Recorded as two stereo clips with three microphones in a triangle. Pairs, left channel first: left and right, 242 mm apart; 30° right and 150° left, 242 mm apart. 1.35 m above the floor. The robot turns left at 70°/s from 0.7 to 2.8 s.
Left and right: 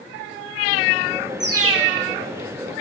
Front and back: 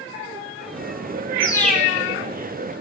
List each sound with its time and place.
1.4 s a bird: 100° right, 1.7 m; by 1.9 s 135° right, 1.7 m